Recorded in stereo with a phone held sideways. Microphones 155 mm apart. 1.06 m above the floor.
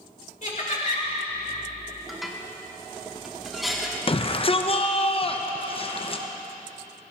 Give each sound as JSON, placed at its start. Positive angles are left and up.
{"t": 0.4, "sound": "laughter", "side_deg": 55, "distance_m": 3.0}
{"t": 2.1, "sound": "dishes clattering", "side_deg": 0, "distance_m": 1.3}
{"t": 4.1, "sound": "a shout", "side_deg": 35, "distance_m": 0.9}